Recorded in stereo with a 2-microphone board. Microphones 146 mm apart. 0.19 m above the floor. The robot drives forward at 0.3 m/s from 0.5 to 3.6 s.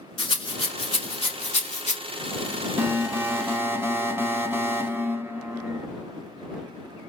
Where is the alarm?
20° right (ahead or behind), 0.7 m; by 5.9 s 15° right (ahead or behind), 0.8 m.